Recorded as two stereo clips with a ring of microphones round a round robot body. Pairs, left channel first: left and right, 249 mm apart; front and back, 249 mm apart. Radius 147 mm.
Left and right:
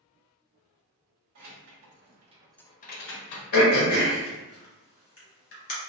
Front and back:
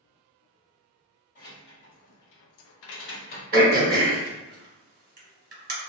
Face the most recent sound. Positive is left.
turn(degrees=130)